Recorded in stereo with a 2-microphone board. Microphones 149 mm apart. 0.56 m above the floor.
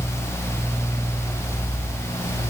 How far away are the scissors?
No scissors in this recording.